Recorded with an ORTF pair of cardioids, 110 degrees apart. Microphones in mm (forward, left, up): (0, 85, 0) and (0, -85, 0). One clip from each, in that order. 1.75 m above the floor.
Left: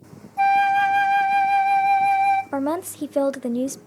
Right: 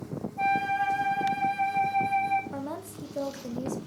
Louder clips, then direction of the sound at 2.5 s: Left 12 dB; 60° left.